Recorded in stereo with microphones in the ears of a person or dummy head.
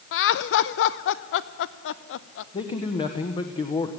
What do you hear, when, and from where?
0.1 s laughter: 70° left (ahead or behind), 0.9 m
2.5 s a man speaking: 25° left (ahead or behind), 1.3 m